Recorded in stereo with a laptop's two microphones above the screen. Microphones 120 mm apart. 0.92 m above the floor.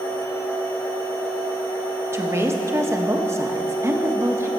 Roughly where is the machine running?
Left.